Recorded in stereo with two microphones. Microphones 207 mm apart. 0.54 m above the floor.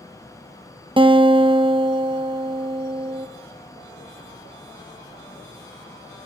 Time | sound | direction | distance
1.0 | a guitar | 25° right (ahead or behind) | 0.6 m